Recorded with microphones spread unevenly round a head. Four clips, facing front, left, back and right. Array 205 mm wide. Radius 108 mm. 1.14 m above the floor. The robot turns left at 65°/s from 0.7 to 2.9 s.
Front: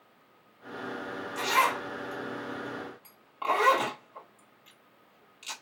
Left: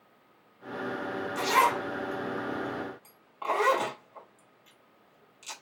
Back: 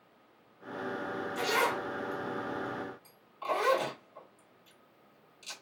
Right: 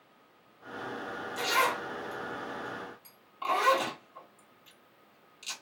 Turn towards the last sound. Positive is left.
turn(degrees=10)